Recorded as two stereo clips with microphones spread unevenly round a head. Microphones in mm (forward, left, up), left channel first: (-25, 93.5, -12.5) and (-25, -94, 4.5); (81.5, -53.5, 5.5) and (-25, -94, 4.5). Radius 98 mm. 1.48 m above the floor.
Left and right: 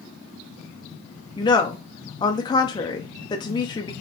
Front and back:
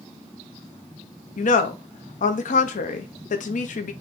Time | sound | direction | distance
1.4 | a woman speaking | 20° left | 0.7 m